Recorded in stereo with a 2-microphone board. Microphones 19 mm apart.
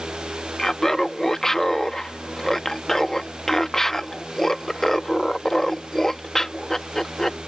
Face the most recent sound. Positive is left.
turn(degrees=20)  # may be behind; listen again after turning